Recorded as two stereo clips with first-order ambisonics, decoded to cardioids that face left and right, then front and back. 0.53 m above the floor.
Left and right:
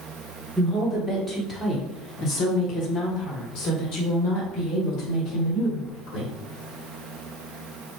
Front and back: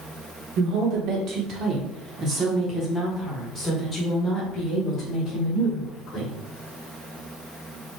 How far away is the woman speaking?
About 1.6 m.